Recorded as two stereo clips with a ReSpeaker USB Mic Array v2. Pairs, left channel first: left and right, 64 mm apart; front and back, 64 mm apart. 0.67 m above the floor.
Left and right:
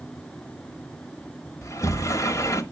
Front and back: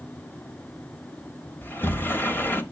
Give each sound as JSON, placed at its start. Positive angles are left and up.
{"t": 1.6, "sound": "a sliding door", "azimuth_deg": 55, "distance_m": 0.9}